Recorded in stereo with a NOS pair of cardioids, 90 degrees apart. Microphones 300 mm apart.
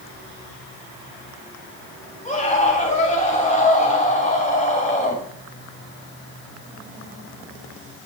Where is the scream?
25° left, 8 m.